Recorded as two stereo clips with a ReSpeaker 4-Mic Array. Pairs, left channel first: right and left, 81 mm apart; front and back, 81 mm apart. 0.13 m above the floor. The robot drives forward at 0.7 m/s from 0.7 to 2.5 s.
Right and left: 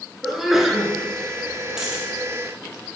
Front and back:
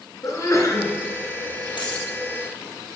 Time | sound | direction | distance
0.2 | a sneeze | 10° left | 1.8 m
1.8 | a dropped coin | 10° left | 2 m